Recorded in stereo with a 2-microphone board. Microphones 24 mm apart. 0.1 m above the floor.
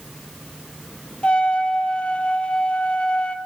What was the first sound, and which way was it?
A trumpet, 55° left (ahead or behind).